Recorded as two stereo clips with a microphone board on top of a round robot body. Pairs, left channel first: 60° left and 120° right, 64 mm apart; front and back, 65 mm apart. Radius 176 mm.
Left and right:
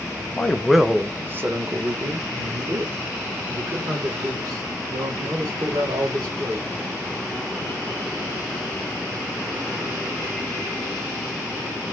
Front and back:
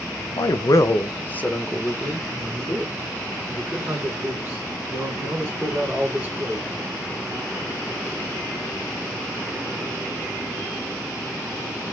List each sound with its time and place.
0.4 s a man speaking: 10° right, 0.6 m; by 6.7 s 110° right, 3 m